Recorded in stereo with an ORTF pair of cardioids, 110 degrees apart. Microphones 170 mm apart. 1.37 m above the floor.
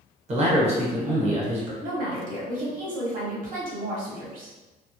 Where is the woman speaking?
55° right, 1.0 m.